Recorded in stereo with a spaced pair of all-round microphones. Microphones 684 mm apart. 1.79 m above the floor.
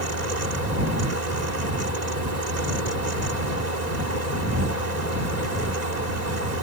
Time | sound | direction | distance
0.0 | a fan | 70° right (ahead or behind) | ?